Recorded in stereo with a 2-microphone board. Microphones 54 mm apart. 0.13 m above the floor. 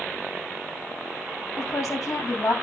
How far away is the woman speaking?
About 7 m.